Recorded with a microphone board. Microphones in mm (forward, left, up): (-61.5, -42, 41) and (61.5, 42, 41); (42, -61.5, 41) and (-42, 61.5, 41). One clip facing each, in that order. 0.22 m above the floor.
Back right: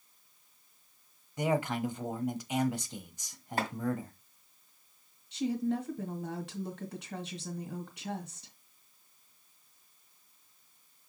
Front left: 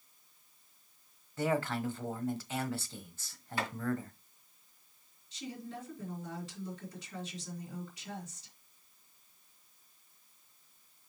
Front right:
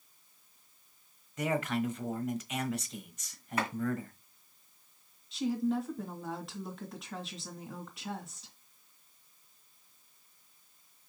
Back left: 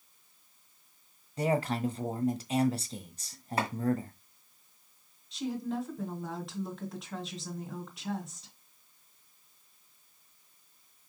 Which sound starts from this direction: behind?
Chopping, at 3.6 s.